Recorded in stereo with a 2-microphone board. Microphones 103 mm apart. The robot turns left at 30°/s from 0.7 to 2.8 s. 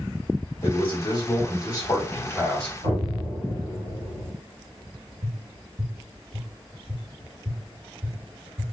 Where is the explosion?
85° right, 2.5 m.